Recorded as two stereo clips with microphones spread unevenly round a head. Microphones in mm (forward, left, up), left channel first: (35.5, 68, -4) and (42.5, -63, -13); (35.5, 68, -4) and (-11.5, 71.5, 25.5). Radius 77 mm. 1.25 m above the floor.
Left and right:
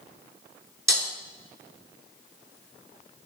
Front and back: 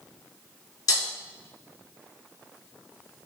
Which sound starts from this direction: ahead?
Breaking glass, at 0.9 s.